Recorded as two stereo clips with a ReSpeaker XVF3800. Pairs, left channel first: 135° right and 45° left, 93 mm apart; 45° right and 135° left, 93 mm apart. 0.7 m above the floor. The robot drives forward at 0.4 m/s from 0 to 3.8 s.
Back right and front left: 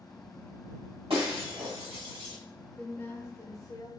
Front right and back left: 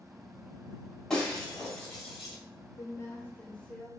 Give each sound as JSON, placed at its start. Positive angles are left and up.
{"t": 1.1, "sound": "breaking glass", "azimuth_deg": 35, "distance_m": 1.7}
{"t": 2.8, "sound": "a woman speaking", "azimuth_deg": -70, "distance_m": 0.6}